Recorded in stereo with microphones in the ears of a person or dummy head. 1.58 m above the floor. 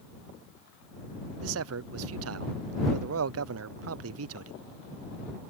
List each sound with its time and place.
1.4 s a man speaking: 70° right (ahead or behind)